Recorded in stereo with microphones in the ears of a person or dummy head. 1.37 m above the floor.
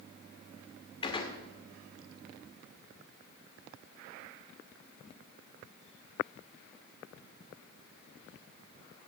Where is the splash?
No splash in this recording.